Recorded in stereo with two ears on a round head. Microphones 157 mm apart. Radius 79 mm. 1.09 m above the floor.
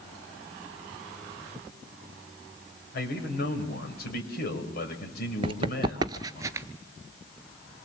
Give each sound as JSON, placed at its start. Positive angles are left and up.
{"t": 2.9, "sound": "a man speaking", "side_deg": 60, "distance_m": 5.5}
{"t": 5.4, "sound": "running footsteps", "side_deg": -30, "distance_m": 1.2}